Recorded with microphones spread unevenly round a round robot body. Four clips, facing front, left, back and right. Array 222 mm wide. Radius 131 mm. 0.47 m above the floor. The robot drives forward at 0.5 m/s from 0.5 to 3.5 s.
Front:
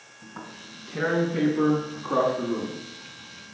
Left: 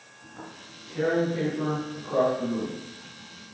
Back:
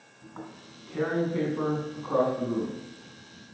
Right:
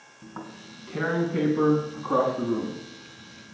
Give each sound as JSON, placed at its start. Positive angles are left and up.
{"t": 0.2, "sound": "tearing paper", "azimuth_deg": -80, "distance_m": 5.5}